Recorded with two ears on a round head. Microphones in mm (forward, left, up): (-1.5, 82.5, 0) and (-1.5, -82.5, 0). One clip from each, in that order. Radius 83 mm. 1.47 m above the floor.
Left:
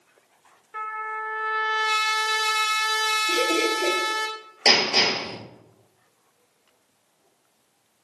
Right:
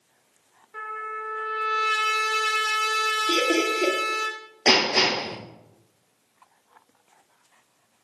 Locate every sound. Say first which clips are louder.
0.7 s a trumpet: left 2 dB; 25° left (ahead or behind), 0.5 m
3.3 s laughter: even; 70° right (ahead or behind), 1.1 m
4.7 s hammering: left 1 dB; 55° left (ahead or behind), 2 m